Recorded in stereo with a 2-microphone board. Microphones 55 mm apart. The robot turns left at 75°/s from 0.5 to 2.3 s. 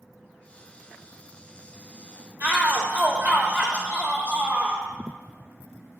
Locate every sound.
2.4 s a shout: 45° right (ahead or behind), 1.5 m